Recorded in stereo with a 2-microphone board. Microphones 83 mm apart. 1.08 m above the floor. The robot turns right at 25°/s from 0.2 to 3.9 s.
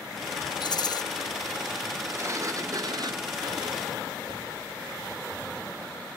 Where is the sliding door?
150° right, 0.6 m; by 4.6 s 105° right, 0.6 m.